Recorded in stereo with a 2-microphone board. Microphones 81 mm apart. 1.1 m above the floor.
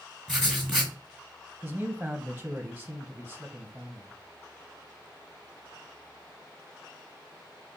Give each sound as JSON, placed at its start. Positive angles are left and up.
{"t": 0.3, "sound": "writing", "side_deg": 5, "distance_m": 1.7}
{"t": 1.6, "sound": "a man speaking", "side_deg": -10, "distance_m": 0.6}